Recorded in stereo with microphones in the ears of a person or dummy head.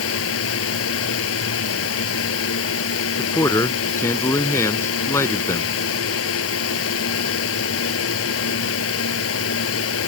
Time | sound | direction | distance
0.0 | a fan | 85° left | ?
3.2 | a man speaking | 15° left (ahead or behind) | ?